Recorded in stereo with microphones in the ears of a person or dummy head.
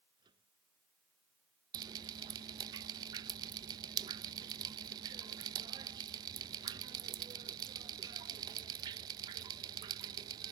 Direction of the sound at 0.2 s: 25° right (ahead or behind).